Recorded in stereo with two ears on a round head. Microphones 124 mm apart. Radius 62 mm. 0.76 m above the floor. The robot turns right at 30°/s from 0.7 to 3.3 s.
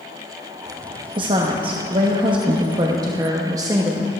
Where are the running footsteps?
I don't hear running footsteps.